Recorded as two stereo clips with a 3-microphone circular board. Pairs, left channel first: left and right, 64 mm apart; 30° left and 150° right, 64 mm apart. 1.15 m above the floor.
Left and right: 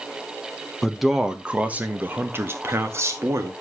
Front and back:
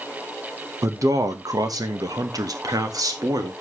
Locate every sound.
0.8 s a man speaking: straight behind, 1.0 m; by 3.5 s 130° right, 2 m